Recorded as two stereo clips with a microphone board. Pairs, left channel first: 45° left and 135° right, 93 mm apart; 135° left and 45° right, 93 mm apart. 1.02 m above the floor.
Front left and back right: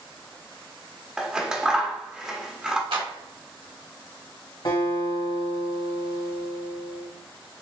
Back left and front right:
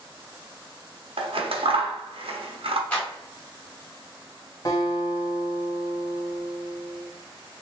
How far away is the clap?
About 2 m.